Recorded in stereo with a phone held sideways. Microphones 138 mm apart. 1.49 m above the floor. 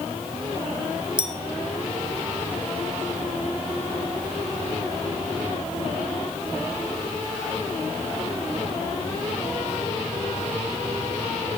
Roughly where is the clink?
Right.